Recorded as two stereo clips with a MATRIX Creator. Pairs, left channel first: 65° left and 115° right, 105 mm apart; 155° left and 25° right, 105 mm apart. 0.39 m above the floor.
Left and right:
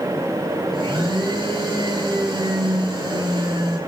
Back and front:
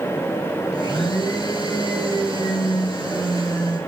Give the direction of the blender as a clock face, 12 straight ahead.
5 o'clock.